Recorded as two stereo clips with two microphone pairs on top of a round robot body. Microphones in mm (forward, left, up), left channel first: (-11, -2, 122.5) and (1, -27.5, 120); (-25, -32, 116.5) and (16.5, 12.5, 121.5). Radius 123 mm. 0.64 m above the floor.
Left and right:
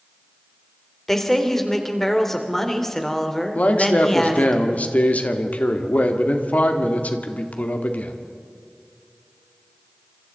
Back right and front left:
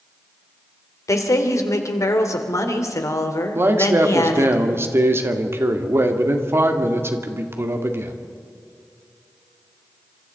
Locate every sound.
1.1 s a woman speaking: 165° right, 3 m
3.5 s a man speaking: 95° left, 2 m